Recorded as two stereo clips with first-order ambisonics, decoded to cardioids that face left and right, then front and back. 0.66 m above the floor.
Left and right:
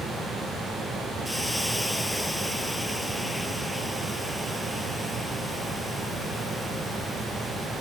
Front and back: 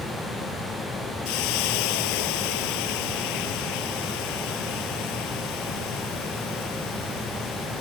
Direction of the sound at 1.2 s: Straight ahead.